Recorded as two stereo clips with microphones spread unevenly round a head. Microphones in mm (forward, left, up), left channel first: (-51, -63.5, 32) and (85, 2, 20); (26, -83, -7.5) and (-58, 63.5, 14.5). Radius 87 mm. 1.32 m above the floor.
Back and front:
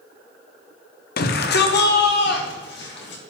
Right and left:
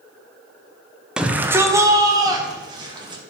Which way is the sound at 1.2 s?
150° right.